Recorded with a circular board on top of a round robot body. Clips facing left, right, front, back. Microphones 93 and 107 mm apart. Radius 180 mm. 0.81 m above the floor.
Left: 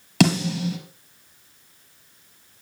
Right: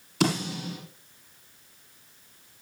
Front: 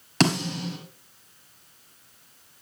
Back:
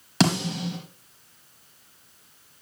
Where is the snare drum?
95° left, 4.5 m.